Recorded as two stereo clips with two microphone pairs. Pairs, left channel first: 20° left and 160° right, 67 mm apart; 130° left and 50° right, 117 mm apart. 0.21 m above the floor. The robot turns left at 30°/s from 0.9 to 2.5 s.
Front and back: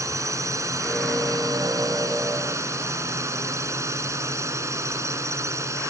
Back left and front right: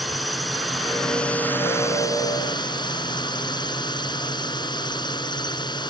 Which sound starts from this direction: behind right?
A drone, at 0.0 s.